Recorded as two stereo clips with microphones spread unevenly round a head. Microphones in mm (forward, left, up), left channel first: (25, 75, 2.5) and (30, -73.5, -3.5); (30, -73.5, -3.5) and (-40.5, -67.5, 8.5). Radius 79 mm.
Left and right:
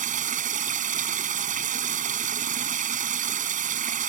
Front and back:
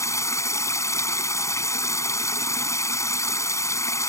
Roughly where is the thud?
I don't hear a thud.